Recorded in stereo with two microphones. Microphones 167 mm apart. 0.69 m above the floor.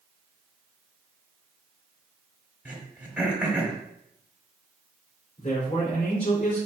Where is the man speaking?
45° left (ahead or behind), 2.5 m.